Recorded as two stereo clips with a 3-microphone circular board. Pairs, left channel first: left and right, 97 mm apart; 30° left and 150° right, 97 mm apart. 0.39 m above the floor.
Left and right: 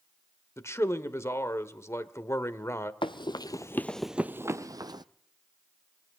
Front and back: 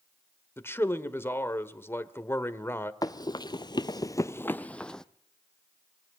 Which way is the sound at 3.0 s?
75° left.